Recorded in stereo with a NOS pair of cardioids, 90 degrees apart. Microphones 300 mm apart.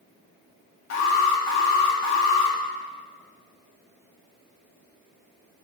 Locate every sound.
0.9 s an alarm: 60° left, 3 m